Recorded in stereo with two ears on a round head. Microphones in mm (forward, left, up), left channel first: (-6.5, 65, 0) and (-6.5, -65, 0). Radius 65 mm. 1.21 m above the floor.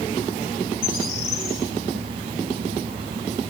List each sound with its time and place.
0.8 s a bird: 85° left, 6 m